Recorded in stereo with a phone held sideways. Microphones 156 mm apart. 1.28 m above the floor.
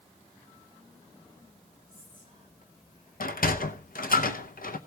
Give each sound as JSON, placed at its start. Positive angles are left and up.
{"t": 1.9, "sound": "whispering", "side_deg": 65, "distance_m": 5.0}
{"t": 3.2, "sound": "a sliding door", "side_deg": 70, "distance_m": 0.7}